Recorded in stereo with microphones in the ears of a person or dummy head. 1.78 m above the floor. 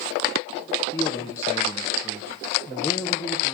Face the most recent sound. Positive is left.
turn(degrees=20)  # may be behind; listen again after turning